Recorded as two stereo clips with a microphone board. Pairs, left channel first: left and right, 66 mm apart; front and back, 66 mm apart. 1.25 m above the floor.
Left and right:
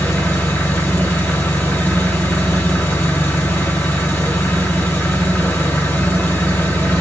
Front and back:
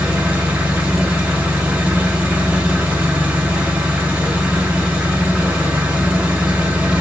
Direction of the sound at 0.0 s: 120° left.